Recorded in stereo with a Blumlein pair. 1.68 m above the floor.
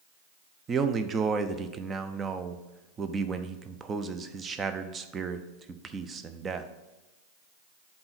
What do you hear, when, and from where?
0.7 s a man speaking: 20° right, 0.7 m